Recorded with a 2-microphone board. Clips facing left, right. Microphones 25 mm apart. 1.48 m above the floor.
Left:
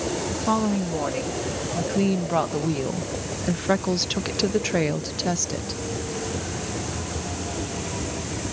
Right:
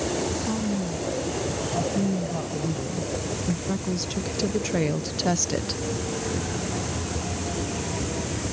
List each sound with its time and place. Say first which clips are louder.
0.3 s a woman speaking: left 4 dB; 75° left (ahead or behind); by 5.8 s 20° right (ahead or behind)